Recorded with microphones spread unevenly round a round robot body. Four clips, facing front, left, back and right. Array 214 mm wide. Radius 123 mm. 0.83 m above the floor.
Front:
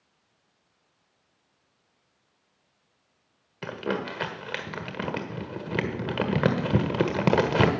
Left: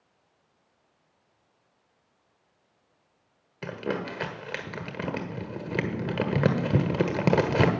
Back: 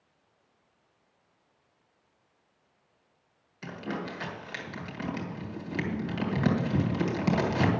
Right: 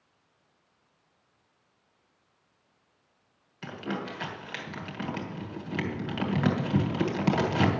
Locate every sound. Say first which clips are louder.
3.6 s crumpling: left 3 dB, front 6 dB; 40° left, 1.5 m